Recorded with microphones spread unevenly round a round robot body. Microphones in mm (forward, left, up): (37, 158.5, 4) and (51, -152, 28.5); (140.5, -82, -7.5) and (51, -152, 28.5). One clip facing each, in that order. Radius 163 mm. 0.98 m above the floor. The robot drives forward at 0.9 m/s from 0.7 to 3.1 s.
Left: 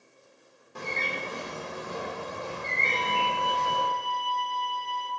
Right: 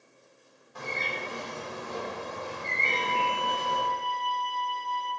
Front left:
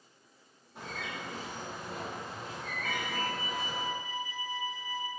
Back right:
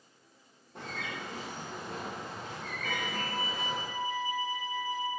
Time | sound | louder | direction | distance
0.8 | a bird | left 1 dB, back right 1 dB | 150° left | 1.2 m
2.9 | a violin | even, front left 1 dB | 145° right | 1.5 m